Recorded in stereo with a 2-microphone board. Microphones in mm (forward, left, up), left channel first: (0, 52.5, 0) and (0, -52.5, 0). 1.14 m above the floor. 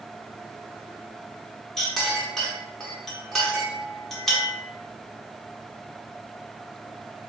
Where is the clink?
5° left (ahead or behind), 0.8 m.